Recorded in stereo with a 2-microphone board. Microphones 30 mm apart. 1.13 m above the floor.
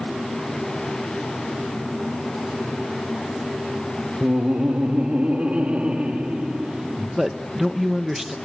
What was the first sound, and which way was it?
Laughter, 60° right (ahead or behind).